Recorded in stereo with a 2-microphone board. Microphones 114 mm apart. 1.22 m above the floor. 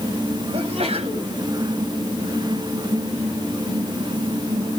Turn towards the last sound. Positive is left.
turn(degrees=-60)  # may be behind; listen again after turning